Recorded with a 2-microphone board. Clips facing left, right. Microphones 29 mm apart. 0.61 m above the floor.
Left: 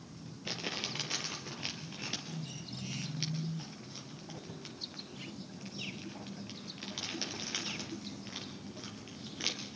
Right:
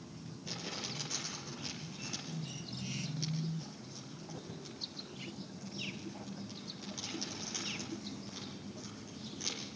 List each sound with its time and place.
0.5 s crumpling: 45° left (ahead or behind), 4 m